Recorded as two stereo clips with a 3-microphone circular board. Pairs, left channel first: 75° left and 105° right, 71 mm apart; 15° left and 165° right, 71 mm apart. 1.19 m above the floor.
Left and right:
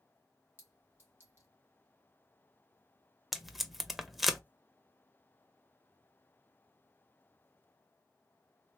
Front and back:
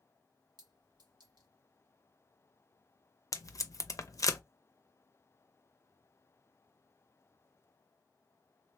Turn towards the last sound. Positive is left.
turn(degrees=-20)